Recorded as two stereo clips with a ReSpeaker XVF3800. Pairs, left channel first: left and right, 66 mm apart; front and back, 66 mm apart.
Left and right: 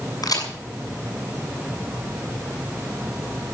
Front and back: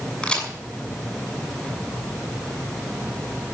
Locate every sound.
0.2 s a crack: 80° left, 6.5 m